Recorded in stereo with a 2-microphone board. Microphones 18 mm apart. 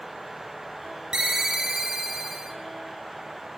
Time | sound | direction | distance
1.1 | a ringtone | 40° right (ahead or behind) | 0.8 m